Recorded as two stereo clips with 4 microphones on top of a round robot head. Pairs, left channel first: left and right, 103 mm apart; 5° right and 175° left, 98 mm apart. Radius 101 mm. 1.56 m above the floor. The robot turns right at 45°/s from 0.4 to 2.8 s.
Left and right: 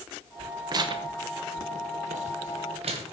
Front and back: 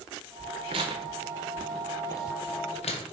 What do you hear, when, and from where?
0.7 s tearing paper: 140° right, 1.0 m; by 3.0 s 45° right, 1.0 m